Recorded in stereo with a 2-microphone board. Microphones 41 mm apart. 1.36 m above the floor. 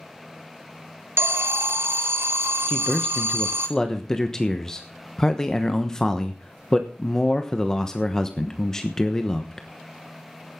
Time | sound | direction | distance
1.2 | an alarm | 75° right (ahead or behind) | 1.4 m
2.7 | a man speaking | 15° left (ahead or behind) | 1.1 m